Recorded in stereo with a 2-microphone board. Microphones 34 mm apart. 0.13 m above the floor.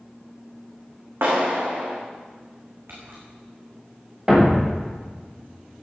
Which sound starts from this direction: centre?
A thud, at 4.3 s.